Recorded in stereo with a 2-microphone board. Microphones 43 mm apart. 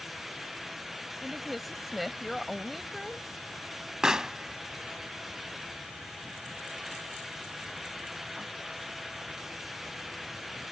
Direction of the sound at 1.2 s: Centre (ahead or behind).